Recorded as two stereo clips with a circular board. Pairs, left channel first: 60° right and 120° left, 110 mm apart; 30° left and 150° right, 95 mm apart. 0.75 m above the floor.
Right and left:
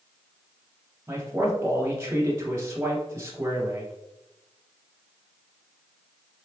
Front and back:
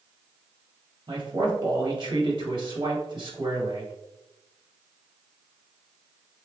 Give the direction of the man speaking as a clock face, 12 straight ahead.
6 o'clock.